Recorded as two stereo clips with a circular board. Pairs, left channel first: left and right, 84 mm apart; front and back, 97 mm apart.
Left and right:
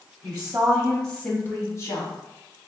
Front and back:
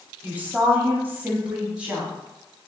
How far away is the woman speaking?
About 1.2 m.